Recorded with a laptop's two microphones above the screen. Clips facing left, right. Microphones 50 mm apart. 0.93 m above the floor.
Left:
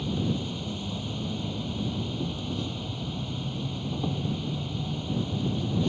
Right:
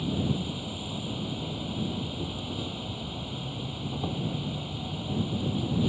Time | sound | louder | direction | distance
0.0 | an insect | even | 5° right (ahead or behind) | ?